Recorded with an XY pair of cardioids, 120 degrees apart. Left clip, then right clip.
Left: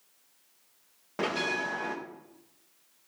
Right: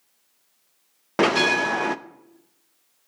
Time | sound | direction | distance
1.2 | a bell | 65° right | 0.5 m